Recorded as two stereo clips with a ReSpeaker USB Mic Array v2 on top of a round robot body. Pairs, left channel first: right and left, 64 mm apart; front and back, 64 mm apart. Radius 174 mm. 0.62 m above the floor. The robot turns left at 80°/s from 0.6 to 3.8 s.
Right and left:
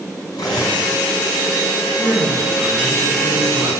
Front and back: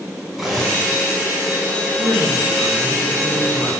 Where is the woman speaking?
165° left, 5.5 m; by 3.7 s 25° left, 5.5 m.